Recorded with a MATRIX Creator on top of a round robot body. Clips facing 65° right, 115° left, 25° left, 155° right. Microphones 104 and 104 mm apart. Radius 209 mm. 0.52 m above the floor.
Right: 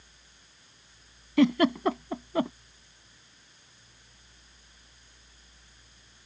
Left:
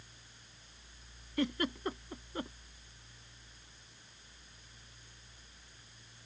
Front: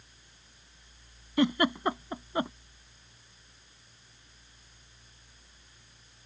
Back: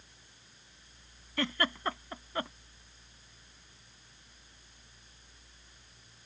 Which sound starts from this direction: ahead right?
A giggle, at 1.4 s.